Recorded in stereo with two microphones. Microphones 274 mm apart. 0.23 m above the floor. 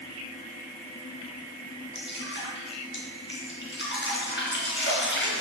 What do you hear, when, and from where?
1.9 s dripping: 45° left (ahead or behind), 3 m